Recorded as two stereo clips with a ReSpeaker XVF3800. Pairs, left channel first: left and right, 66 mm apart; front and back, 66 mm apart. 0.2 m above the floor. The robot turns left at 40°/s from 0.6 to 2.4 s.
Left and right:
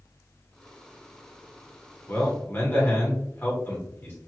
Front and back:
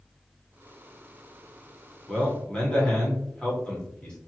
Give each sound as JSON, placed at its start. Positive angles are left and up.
{"t": 2.1, "sound": "a man speaking", "azimuth_deg": 80, "distance_m": 1.5}